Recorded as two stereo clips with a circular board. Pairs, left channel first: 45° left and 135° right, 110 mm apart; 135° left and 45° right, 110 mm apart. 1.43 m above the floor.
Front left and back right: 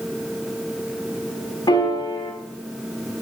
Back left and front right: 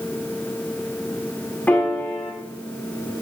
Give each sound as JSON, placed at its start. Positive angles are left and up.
{"t": 1.7, "sound": "a piano", "azimuth_deg": 65, "distance_m": 1.3}